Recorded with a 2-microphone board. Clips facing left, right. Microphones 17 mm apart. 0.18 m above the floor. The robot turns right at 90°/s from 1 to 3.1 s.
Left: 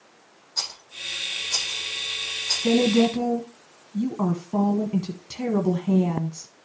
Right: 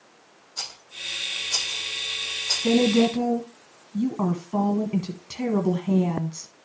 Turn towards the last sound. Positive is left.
turn(degrees=-55)